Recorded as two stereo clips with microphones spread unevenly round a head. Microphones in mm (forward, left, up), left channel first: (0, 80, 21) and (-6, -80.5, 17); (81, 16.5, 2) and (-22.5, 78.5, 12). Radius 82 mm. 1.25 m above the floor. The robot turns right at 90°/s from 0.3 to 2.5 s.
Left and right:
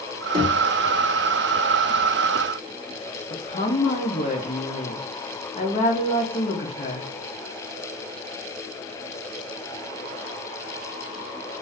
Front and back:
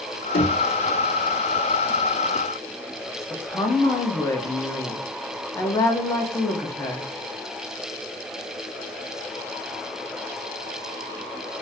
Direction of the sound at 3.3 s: 35° left.